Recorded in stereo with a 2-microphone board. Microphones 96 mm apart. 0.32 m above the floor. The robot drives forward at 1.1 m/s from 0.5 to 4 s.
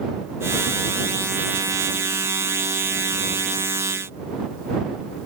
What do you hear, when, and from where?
Only background noise.